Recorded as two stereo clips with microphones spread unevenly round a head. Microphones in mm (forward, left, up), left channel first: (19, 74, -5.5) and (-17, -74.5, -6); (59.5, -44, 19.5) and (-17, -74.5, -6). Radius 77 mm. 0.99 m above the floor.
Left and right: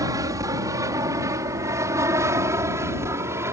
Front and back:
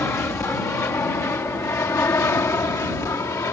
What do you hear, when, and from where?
0.0 s an aircraft: 40° right; by 3.5 s 30° right